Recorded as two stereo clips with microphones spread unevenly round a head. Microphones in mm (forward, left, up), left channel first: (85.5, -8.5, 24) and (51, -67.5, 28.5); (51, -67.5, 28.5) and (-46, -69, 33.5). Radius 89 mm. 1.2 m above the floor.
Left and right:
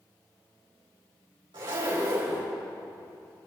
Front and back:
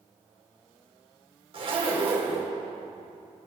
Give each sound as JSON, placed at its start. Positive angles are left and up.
{"t": 1.5, "sound": "a zipper", "azimuth_deg": -155, "distance_m": 3.5}